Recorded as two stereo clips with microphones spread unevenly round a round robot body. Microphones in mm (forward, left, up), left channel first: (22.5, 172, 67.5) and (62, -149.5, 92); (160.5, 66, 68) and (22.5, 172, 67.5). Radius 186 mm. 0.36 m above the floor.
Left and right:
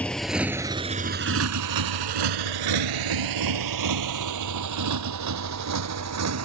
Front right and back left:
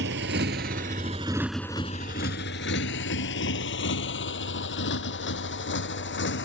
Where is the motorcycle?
175° right; by 6.4 s 40° right.